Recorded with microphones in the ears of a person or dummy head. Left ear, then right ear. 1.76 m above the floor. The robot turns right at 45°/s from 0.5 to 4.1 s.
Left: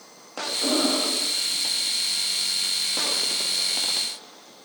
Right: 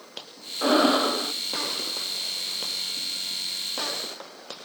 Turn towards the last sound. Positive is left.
turn(degrees=50)